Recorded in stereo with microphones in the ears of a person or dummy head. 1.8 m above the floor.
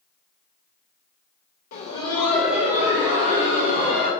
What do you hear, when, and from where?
1.7 s laughter: 40° left (ahead or behind), 0.7 m; by 4.1 s 35° right (ahead or behind), 1.6 m